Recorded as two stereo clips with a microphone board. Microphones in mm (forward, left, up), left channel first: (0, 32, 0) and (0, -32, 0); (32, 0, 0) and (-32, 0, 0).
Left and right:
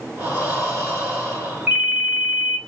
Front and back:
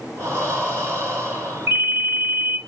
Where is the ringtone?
150° right, 1.1 m.